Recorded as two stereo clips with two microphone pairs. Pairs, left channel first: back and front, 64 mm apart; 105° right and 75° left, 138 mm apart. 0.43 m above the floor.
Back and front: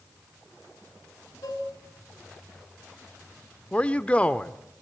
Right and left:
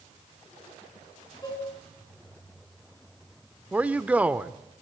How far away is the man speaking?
About 0.9 m.